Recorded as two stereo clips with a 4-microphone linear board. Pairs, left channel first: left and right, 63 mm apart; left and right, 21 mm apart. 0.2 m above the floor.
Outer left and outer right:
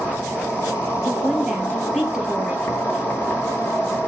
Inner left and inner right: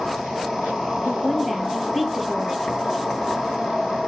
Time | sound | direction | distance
0.0 | an insect | 25° left (ahead or behind) | 1.1 m
1.1 | a woman speaking | 10° right (ahead or behind) | 3.5 m